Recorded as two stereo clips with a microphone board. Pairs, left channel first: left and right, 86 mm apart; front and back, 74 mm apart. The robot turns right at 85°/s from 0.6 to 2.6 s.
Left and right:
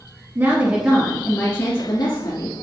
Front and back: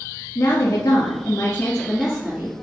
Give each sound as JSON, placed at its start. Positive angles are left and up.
{"t": 0.3, "sound": "a woman speaking", "azimuth_deg": -35, "distance_m": 1.7}